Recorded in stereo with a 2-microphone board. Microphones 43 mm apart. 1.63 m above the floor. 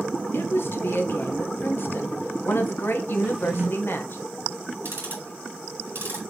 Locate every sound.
0.3 s a woman speaking: 60° left (ahead or behind), 1.5 m
3.2 s a drawer: 25° right (ahead or behind), 0.9 m
4.8 s ticking: 65° right (ahead or behind), 4 m